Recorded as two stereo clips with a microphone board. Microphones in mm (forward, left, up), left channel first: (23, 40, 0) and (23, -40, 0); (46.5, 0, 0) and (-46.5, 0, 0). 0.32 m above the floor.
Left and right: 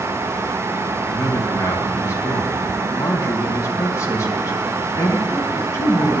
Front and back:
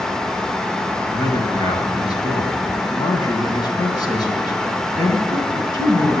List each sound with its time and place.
1.1 s a man speaking: 40° left, 3 m